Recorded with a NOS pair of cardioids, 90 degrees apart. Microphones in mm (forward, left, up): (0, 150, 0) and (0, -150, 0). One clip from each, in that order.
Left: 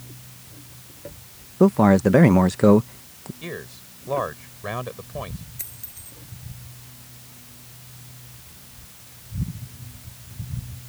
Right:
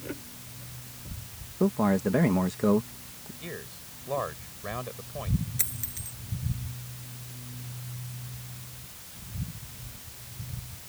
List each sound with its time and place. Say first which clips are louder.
1.6 s a man speaking: left 9 dB; 60° left
3.4 s a man speaking: left 6 dB; 45° left
5.6 s a dropped coin: right 5 dB; 45° right